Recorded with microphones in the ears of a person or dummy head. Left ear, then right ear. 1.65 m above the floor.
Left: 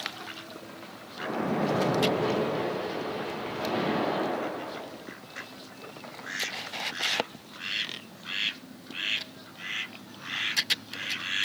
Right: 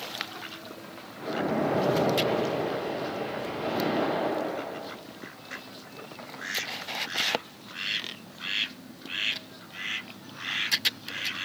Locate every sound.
1.2 s a splash: 50° left (ahead or behind), 1.9 m